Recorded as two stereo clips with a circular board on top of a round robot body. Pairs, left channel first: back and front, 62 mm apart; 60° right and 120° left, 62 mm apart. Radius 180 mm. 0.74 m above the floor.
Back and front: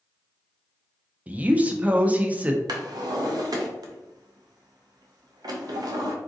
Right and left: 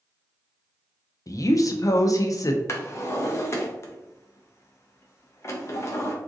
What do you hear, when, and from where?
1.3 s a woman speaking: 60° right, 0.5 m
2.7 s a drawer: 10° right, 0.5 m